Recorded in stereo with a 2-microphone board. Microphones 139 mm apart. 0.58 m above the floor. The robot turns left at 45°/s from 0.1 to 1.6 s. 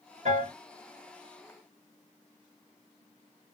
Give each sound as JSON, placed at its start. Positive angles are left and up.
{"t": 0.2, "sound": "a piano", "side_deg": -60, "distance_m": 2.0}